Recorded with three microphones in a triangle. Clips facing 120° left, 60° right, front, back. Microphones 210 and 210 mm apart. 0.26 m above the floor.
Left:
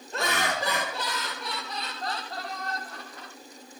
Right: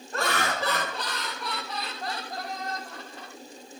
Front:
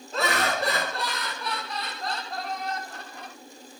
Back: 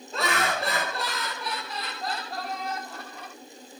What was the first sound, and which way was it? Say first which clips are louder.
Laughter: right 1 dB, front 1 dB; 90° left.